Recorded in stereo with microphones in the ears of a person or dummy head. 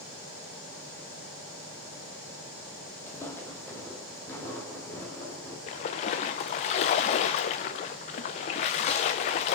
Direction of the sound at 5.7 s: 30° left (ahead or behind).